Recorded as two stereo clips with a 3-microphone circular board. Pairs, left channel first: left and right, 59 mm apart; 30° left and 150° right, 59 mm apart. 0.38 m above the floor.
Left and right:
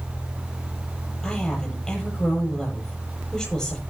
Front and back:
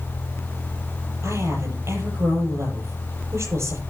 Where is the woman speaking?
170° left, 9 m.